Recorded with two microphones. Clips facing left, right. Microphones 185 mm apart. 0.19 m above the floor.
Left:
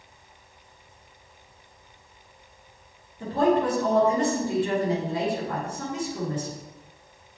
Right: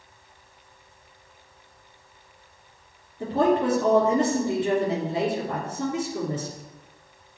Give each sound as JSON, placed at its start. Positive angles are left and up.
{"t": 3.2, "sound": "a woman speaking", "side_deg": -25, "distance_m": 3.5}